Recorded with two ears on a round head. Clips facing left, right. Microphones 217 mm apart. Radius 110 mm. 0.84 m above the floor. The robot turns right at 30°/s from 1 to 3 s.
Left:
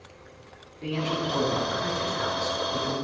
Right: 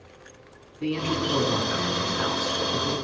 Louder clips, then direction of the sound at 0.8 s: Right 3 dB; 115° right.